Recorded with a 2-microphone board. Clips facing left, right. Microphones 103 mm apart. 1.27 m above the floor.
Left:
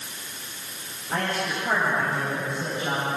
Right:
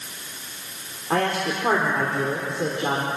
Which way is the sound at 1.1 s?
80° right.